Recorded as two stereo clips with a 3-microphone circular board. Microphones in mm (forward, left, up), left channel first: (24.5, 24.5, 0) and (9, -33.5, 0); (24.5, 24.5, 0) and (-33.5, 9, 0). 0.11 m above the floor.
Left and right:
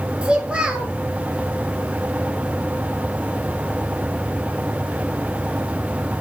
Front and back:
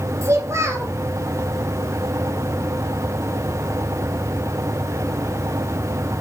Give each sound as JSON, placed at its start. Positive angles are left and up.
{"t": 0.2, "sound": "a child speaking", "azimuth_deg": -175, "distance_m": 1.6}